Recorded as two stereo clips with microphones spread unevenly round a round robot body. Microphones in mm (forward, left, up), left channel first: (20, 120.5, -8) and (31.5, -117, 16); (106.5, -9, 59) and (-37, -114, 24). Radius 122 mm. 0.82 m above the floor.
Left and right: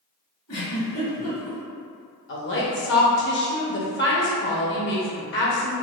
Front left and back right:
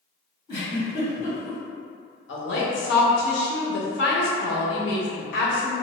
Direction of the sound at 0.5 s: 85° left.